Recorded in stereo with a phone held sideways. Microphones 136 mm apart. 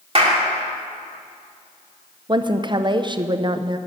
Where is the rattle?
I don't hear a rattle.